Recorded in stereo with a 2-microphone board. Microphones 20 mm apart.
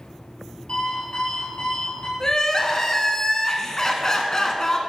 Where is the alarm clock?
55° left (ahead or behind), 3.5 m.